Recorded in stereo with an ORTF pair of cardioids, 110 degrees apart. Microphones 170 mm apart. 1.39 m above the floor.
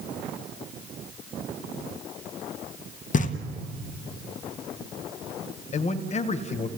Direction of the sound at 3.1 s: 50° left.